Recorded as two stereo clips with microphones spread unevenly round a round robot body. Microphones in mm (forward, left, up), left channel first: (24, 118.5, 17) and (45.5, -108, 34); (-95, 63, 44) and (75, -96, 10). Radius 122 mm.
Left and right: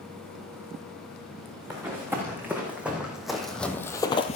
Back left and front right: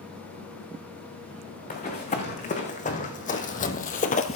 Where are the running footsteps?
165° right, 3 m; by 4.4 s 145° left, 0.7 m.